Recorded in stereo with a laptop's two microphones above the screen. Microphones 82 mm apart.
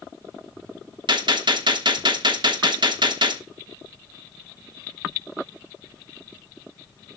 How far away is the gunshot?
About 1.0 m.